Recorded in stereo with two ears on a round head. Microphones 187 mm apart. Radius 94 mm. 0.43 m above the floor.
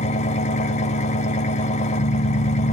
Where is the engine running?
30° left (ahead or behind), 0.8 m.